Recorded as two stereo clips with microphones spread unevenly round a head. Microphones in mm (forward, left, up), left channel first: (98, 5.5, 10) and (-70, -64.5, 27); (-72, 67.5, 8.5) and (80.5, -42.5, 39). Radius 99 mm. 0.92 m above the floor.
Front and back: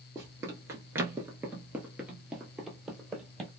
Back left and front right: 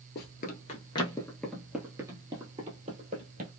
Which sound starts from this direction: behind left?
Running footsteps, at 0.1 s.